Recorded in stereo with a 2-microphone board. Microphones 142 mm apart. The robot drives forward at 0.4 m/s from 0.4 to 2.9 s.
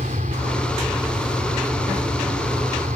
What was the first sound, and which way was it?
An aircraft, 65° right (ahead or behind).